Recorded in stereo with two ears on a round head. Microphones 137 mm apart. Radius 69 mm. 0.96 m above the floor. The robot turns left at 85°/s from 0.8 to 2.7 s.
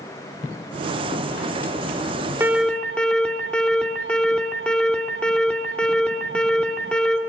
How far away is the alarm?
About 3 m.